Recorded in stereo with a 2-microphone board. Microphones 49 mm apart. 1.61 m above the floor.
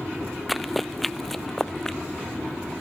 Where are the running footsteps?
Centre (ahead or behind); by 2.0 s 10° left (ahead or behind).